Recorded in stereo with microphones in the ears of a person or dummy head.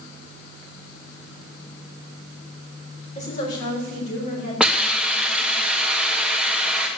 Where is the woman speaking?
40° left (ahead or behind), 5.5 m; by 5.6 s 50° left (ahead or behind), 9 m.